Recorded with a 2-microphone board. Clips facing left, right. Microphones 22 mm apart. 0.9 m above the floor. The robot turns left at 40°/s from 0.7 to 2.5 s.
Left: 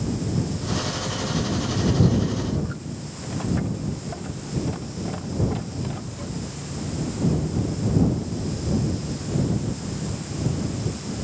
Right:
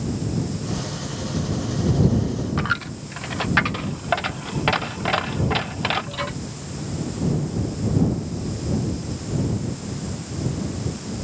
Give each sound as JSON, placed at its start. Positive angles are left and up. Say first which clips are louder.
{"t": 2.6, "sound": "a dropped coin", "louder": "right 6 dB", "side_deg": -80}